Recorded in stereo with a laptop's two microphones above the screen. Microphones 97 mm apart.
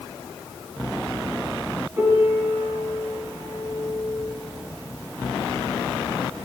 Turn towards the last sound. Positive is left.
turn(degrees=-25)  # may be behind; listen again after turning